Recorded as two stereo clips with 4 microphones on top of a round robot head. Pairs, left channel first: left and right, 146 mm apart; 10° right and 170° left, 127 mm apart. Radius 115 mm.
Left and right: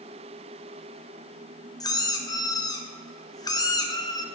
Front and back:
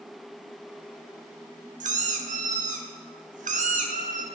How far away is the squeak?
About 0.9 m.